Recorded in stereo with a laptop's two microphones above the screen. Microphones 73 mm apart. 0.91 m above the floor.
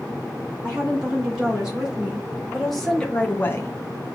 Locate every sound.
0.6 s a woman speaking: 15° right (ahead or behind), 2.5 m; by 3.7 s 45° left (ahead or behind), 0.5 m